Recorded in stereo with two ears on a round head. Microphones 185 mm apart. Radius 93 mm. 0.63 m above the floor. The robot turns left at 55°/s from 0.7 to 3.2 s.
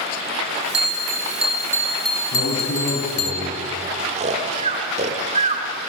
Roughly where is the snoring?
Right.